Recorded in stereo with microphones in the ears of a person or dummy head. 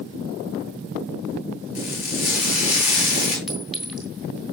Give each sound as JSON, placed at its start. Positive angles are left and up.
{"t": 1.8, "sound": "frying", "side_deg": 45, "distance_m": 5.0}
{"t": 3.5, "sound": "a clink", "side_deg": 0, "distance_m": 2.0}